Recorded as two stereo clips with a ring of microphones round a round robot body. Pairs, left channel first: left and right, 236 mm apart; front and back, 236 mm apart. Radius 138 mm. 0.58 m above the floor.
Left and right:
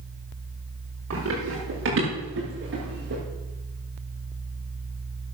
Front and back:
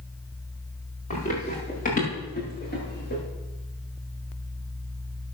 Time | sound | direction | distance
1.1 | running footsteps | 60° right | 7.5 m